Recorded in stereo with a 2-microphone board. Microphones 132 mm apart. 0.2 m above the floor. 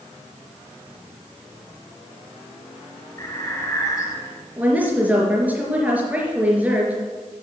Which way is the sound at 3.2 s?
25° left (ahead or behind).